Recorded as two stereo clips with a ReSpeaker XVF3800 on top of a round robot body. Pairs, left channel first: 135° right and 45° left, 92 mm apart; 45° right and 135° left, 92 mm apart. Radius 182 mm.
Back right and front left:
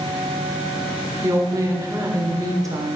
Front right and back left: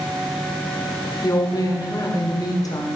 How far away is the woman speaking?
About 1.8 m.